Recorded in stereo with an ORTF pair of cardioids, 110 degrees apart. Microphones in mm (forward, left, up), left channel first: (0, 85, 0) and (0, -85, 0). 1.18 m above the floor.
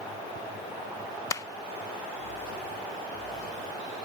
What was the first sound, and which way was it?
A clap, 20° left.